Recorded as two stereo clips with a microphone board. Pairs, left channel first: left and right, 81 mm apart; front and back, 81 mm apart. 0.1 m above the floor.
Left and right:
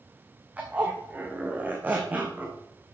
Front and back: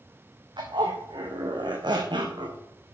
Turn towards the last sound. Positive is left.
turn(degrees=-160)